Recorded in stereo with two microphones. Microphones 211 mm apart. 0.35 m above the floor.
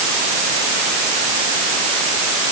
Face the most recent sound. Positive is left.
No sound to turn to.